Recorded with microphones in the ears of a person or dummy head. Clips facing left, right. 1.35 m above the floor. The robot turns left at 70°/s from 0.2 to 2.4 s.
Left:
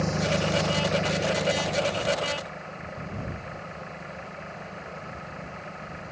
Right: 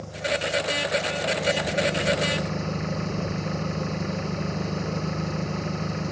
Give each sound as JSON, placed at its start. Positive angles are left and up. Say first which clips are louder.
{"t": 0.0, "sound": "an engine running", "louder": "left 2 dB", "azimuth_deg": 90}